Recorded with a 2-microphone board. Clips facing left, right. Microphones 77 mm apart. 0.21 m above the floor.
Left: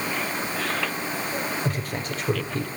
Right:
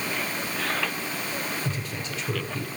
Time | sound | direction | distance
1.6 | a man speaking | 45° left (ahead or behind) | 5.5 m